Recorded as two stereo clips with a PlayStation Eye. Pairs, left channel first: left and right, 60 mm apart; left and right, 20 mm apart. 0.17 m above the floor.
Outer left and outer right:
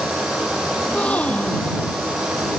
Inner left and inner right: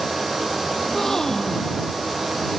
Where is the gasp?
25° left (ahead or behind).